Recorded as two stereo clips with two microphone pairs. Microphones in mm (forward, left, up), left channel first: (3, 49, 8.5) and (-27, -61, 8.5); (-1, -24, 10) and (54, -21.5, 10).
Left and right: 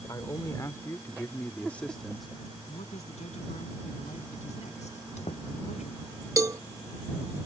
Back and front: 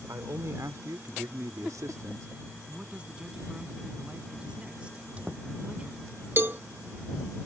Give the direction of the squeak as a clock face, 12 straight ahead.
10 o'clock.